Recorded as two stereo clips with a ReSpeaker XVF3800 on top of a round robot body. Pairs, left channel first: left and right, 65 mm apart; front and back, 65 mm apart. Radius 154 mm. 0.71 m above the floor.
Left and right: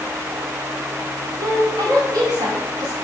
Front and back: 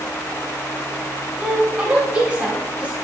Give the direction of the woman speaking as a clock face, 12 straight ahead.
3 o'clock.